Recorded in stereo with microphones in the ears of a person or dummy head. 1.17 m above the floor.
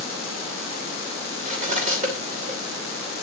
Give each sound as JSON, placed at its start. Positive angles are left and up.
{"t": 1.4, "sound": "cutlery clinking", "side_deg": -45, "distance_m": 2.5}